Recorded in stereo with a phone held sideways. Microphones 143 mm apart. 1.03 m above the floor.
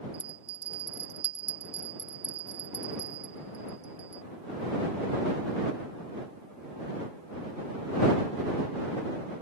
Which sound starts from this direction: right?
A bell, at 0.1 s.